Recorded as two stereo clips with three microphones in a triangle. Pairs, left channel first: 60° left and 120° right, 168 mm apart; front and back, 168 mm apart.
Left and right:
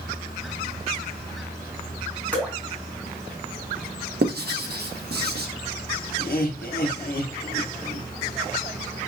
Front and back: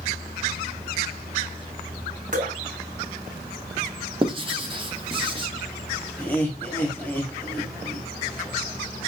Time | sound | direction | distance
2.3 | dripping | 140° left | 2 m
4.2 | writing | 125° right | 0.9 m
6.2 | laughter | 80° left | 1.0 m